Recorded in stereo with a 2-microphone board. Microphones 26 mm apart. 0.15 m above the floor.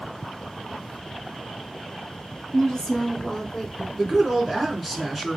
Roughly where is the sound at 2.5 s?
Left.